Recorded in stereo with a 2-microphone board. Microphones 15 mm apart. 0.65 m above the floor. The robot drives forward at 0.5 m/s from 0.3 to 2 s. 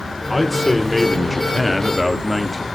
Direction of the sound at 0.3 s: 5° left (ahead or behind).